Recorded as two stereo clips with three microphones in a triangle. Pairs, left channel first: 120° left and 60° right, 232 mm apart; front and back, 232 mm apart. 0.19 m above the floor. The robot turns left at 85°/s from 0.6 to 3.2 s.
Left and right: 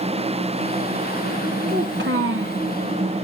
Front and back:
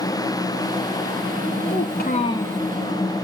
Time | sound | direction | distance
1.7 | a child speaking | 15° right | 1.3 m